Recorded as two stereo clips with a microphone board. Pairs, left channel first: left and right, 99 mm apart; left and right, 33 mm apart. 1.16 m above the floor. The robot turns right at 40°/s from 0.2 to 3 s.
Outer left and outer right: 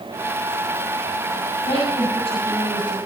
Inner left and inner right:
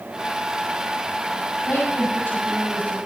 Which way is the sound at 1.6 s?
80° left.